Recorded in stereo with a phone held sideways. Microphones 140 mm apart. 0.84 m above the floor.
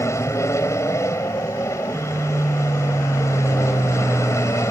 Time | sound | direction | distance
0.0 | an aircraft | 20° left (ahead or behind) | ?